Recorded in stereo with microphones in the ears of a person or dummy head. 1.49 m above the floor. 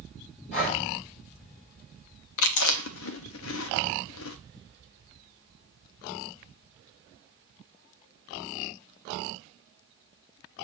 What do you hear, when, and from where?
0.5 s breathing: 40° left (ahead or behind), 5.5 m
2.4 s chewing: 75° left (ahead or behind), 0.8 m